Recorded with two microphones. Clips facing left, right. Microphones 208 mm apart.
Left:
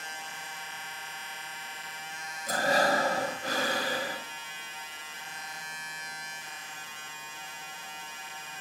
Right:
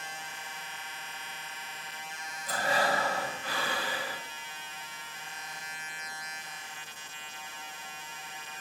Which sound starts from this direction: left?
Breathing, at 2.5 s.